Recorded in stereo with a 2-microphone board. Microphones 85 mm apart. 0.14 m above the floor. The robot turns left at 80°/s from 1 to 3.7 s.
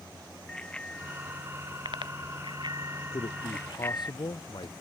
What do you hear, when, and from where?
0.5 s a bicycle bell: 10° left (ahead or behind); by 4.1 s 25° left (ahead or behind)
3.1 s a man speaking: 105° left; by 4.8 s 60° left